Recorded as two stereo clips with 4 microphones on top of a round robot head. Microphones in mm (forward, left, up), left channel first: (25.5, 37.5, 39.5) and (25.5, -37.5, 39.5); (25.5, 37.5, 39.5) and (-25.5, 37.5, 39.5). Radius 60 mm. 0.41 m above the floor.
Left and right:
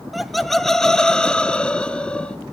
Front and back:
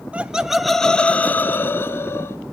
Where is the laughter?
Straight behind, 0.8 m; by 2.4 s 15° left, 1.4 m.